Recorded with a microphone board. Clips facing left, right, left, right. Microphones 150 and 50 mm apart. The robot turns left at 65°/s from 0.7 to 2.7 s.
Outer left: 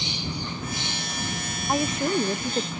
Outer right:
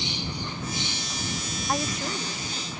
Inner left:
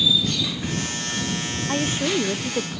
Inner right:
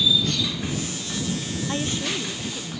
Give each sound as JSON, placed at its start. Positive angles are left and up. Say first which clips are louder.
{"t": 1.7, "sound": "a woman speaking", "louder": "outer left 6 dB, inner left 5 dB", "azimuth_deg": 170}